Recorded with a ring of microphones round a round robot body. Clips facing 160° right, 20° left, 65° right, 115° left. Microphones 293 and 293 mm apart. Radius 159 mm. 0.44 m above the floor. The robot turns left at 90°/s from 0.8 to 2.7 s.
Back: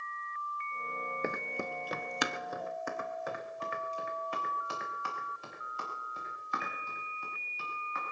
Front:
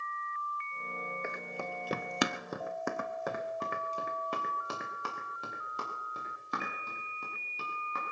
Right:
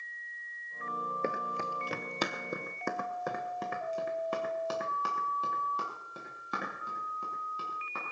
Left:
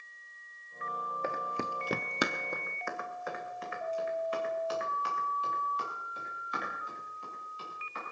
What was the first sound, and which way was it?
Running footsteps, 120° right.